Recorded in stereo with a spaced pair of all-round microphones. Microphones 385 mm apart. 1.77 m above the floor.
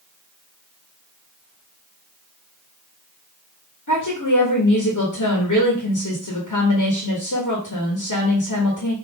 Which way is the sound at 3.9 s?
50° left (ahead or behind).